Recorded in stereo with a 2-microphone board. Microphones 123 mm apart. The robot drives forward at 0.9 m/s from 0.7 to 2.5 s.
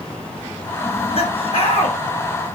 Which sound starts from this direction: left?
Laughter, at 0.8 s.